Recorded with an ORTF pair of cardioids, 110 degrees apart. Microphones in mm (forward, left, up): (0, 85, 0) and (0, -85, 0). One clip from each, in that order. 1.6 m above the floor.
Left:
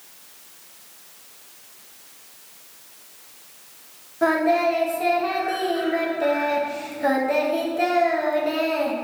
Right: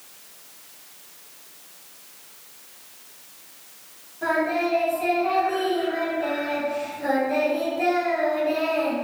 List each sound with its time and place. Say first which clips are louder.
4.2 s singing: left 4 dB; 70° left, 0.9 m